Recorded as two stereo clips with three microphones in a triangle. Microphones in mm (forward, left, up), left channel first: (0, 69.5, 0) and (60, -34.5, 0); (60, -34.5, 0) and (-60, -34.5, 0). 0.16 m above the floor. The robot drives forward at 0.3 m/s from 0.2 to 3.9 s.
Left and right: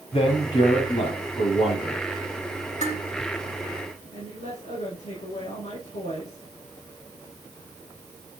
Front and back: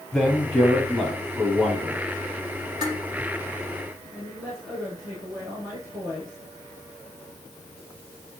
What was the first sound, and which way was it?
A man speaking, 90° left.